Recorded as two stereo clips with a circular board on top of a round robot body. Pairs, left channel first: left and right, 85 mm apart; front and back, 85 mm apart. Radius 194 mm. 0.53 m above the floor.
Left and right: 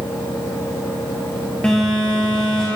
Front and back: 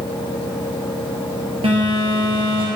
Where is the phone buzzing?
170° left, 2.0 m.